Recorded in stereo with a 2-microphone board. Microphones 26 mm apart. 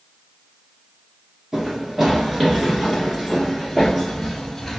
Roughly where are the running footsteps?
Right.